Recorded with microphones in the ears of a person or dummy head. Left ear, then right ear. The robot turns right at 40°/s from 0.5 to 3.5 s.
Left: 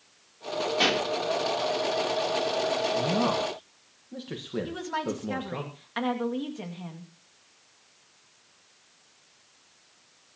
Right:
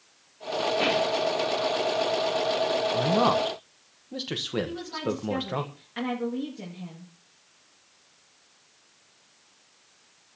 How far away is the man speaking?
About 1.5 m.